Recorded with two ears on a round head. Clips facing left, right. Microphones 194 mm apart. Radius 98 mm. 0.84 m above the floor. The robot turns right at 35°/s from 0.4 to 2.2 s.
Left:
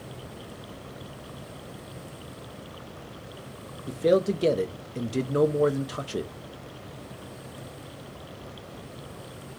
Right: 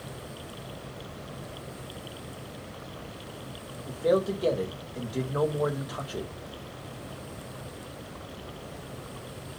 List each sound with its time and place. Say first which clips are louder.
3.9 s a man speaking: left 3 dB; 30° left (ahead or behind), 0.8 m